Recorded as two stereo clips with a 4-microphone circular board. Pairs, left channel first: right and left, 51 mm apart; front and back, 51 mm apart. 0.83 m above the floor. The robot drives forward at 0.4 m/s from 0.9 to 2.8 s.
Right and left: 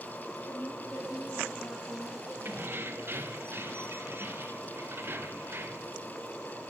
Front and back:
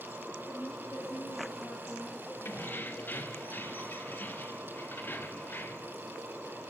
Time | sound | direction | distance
0.5 | a woman speaking | 40° right | 7 m
2.5 | keys jangling | 45° left | 1.4 m